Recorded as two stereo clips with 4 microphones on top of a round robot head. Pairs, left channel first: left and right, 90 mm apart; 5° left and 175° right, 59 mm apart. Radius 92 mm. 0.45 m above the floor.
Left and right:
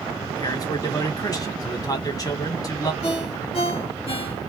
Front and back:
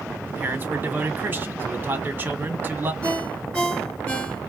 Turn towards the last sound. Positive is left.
turn(degrees=80)